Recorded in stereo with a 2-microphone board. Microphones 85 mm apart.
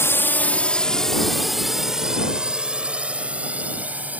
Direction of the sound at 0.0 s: 30° left (ahead or behind).